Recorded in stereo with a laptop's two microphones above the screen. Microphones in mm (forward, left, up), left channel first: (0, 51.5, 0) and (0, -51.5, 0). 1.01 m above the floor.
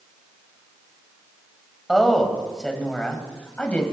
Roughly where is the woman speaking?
Centre.